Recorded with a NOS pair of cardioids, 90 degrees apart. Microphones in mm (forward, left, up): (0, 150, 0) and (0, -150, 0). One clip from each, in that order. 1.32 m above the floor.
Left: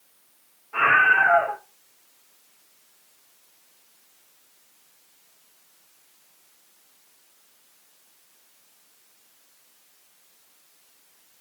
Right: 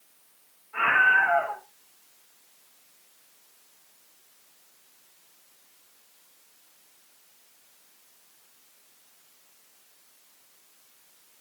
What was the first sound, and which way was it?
A scream, 65° left.